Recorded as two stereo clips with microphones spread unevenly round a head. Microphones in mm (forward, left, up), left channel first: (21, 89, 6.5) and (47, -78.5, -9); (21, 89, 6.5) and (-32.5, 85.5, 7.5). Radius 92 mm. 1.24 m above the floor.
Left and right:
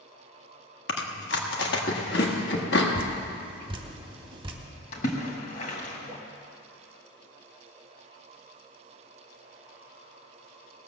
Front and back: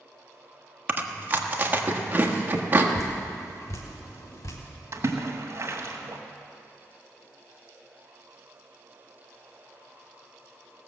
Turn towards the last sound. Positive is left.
turn(degrees=150)